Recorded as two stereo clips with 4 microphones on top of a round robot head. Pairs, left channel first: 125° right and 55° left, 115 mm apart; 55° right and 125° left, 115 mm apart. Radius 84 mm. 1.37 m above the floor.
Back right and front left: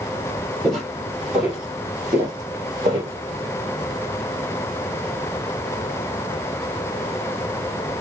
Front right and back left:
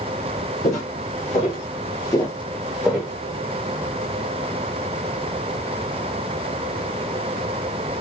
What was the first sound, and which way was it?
Footsteps, 35° right.